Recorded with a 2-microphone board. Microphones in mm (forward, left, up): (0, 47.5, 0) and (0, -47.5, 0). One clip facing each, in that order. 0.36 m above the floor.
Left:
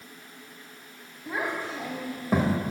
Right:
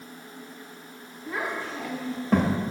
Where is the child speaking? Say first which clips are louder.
Even; 20° left (ahead or behind), 1.1 m; by 2.6 s centre (ahead or behind), 0.5 m.